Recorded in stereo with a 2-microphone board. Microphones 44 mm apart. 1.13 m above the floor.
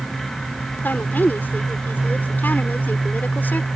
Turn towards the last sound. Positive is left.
turn(degrees=45)  # may be behind; listen again after turning